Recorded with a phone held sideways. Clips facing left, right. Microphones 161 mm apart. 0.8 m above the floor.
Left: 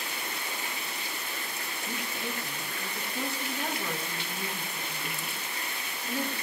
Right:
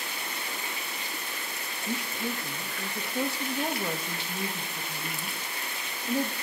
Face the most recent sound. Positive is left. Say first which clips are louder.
# right 5 dB
turn(degrees=-35)  # may be behind; listen again after turning